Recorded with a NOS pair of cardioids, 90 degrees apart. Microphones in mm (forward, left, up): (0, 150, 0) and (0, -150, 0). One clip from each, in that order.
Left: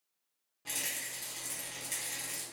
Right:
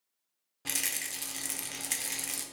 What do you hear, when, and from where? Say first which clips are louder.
0.7 s a rattle: right 4 dB; 45° right, 0.6 m